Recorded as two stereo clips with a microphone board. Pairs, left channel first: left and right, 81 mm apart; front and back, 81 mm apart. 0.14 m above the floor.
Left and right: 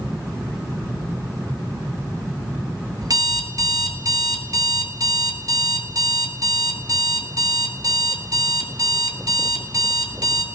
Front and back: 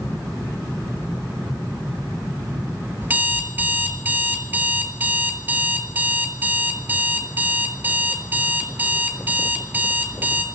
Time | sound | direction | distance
3.0 | an alarm clock | 115° right | 1.0 m